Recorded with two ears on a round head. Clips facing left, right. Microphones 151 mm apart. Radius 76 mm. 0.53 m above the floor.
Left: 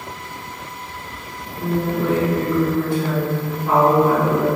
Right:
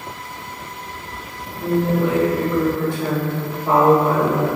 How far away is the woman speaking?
About 1.1 m.